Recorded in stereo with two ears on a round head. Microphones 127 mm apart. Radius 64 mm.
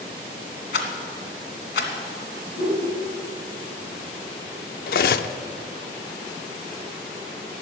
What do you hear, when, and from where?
0.7 s a rattle: 75° left (ahead or behind), 2 m
2.6 s a whoosh: 70° left (ahead or behind), 5 m
4.9 s cutlery clinking: 70° left (ahead or behind), 0.6 m